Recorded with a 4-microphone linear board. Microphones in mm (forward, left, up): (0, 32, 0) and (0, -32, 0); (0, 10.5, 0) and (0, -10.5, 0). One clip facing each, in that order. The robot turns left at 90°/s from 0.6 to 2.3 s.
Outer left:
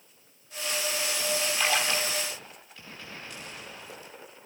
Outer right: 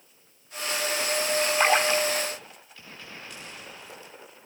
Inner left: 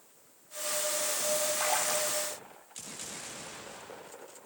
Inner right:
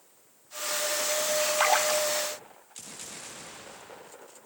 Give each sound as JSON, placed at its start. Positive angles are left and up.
{"t": 1.6, "sound": "a splash", "azimuth_deg": -130, "distance_m": 1.6}